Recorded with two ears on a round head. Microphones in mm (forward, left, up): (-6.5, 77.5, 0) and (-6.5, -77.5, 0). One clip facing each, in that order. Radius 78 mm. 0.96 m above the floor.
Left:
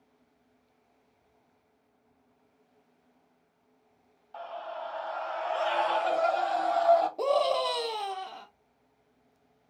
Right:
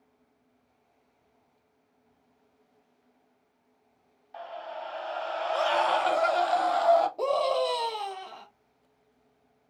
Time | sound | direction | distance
4.3 | a scream | 15° right (ahead or behind) | 1.1 m
7.2 | a scream | 5° left (ahead or behind) | 0.7 m